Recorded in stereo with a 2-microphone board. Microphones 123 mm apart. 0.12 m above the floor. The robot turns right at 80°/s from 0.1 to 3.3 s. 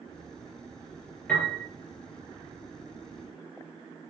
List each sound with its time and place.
1.3 s a piano: 15° left (ahead or behind), 3.5 m; by 1.6 s 10° right (ahead or behind), 3.5 m